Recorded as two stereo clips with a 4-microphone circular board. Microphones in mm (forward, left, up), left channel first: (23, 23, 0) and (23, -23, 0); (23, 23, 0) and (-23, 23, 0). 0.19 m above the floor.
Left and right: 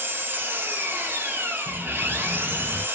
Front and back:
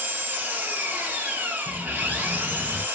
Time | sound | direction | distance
0.0 | an engine running | 130° right | 0.8 m
1.7 | an explosion | 65° left | 0.5 m